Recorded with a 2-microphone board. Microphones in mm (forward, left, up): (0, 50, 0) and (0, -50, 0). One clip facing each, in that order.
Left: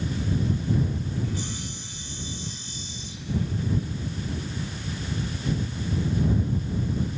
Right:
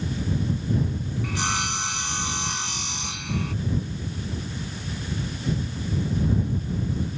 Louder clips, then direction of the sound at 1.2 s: Right 5 dB; 80° right.